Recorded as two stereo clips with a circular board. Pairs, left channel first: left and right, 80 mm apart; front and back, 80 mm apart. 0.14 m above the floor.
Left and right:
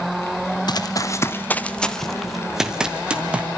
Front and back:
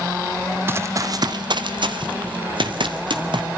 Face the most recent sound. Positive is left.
turn(degrees=-165)